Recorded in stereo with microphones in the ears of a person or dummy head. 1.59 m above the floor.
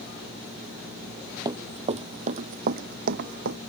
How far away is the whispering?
I don't hear whispering.